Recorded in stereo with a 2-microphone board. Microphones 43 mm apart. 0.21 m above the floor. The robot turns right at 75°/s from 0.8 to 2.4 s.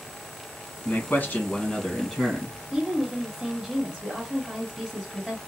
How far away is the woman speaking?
About 1.4 m.